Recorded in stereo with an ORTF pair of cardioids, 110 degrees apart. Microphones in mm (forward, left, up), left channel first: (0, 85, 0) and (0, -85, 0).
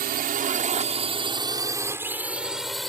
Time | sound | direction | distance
0.0 | a drone | 65° right | ?